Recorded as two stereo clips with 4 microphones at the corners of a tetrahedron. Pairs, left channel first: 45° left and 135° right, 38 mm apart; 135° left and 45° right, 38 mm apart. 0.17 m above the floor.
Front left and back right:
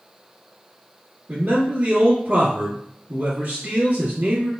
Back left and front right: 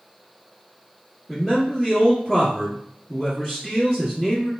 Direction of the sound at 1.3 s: 135° right.